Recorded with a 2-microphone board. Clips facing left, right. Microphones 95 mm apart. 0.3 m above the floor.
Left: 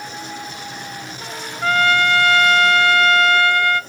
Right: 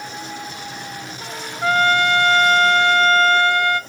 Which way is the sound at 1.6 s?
20° right (ahead or behind).